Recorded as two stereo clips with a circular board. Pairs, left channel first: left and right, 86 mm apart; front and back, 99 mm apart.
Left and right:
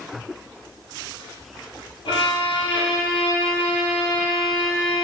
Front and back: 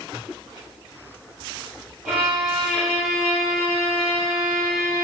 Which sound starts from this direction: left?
A violin, at 2.0 s.